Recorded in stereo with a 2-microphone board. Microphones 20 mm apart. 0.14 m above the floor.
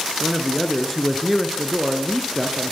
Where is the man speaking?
5° right (ahead or behind), 2.5 m.